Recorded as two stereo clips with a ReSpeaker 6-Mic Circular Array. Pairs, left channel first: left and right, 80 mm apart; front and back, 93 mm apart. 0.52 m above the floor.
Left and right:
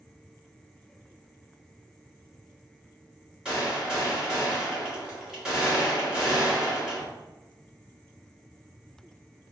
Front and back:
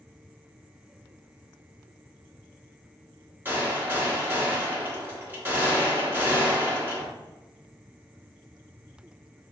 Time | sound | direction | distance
3.5 | a gunshot | 155° right | 1.1 m